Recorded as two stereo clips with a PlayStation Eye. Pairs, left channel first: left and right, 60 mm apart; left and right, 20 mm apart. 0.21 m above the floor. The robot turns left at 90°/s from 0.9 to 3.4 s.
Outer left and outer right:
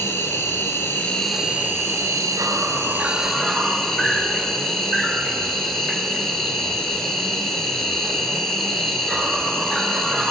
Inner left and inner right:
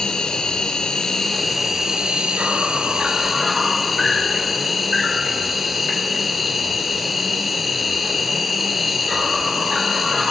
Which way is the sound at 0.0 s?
40° left.